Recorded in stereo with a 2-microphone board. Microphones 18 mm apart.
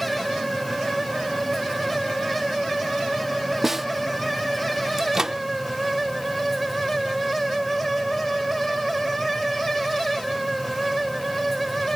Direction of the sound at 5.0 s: 35° right (ahead or behind).